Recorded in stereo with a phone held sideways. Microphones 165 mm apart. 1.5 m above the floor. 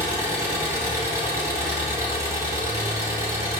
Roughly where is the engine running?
Centre.